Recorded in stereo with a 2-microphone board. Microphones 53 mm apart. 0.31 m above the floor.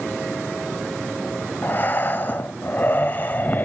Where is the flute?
I don't hear a flute.